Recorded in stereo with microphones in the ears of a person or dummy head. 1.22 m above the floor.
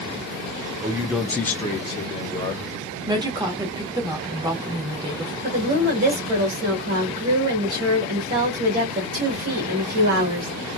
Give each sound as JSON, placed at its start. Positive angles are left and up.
{"t": 0.8, "sound": "a man speaking", "side_deg": -20, "distance_m": 0.5}
{"t": 3.1, "sound": "a woman speaking", "side_deg": -20, "distance_m": 1.1}
{"t": 5.4, "sound": "a woman speaking", "side_deg": -45, "distance_m": 1.5}